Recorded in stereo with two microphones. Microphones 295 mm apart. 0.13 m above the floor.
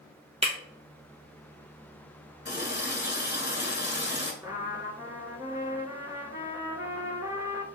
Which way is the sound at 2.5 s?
35° left (ahead or behind).